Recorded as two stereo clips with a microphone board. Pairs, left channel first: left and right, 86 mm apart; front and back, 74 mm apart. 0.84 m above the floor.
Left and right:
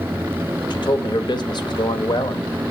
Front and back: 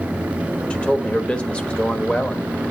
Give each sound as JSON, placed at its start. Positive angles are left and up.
{"t": 0.7, "sound": "a man speaking", "azimuth_deg": 75, "distance_m": 1.0}